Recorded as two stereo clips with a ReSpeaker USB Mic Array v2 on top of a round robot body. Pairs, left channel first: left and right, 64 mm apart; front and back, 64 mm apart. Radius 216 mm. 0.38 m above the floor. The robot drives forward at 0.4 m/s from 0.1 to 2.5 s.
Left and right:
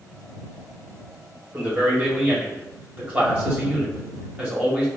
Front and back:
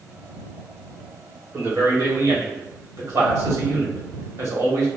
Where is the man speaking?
150° right, 1.9 m; by 4.9 s 155° right, 2 m.